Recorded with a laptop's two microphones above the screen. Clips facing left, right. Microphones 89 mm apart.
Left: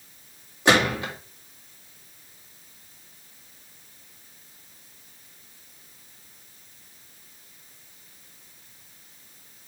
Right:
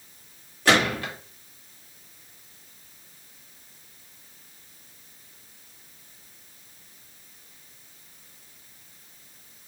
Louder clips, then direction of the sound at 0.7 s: Left 1 dB; 20° left (ahead or behind).